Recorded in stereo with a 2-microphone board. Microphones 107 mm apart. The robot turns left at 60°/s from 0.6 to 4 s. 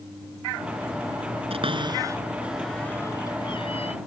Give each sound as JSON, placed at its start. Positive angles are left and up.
{"t": 1.5, "sound": "a cupboard door", "side_deg": -65}